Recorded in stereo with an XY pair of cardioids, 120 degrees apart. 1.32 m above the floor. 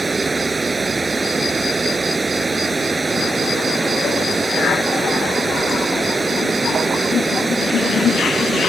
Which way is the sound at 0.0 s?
20° right.